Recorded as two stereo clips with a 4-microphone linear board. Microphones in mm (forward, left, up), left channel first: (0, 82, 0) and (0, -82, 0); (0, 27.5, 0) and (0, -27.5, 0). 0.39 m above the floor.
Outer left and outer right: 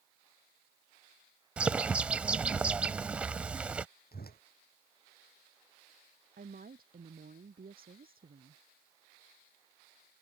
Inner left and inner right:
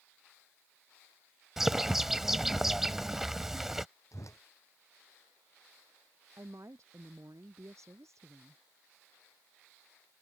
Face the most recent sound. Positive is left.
turn(degrees=-65)  # may be behind; listen again after turning